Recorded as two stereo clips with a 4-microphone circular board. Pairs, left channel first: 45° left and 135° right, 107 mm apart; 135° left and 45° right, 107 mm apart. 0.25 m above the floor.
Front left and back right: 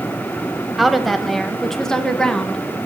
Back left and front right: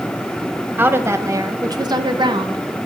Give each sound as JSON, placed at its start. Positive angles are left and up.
{"t": 0.8, "sound": "a woman speaking", "azimuth_deg": -45, "distance_m": 1.0}